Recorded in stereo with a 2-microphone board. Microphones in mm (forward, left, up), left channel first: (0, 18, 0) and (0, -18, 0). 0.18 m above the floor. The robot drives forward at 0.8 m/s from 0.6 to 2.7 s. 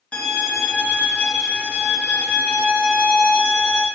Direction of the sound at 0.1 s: 35° left (ahead or behind).